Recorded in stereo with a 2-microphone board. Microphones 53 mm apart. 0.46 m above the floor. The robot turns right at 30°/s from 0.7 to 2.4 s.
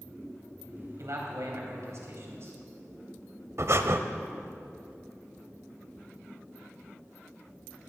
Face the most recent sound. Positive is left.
turn(degrees=-55)  # may be behind; listen again after turning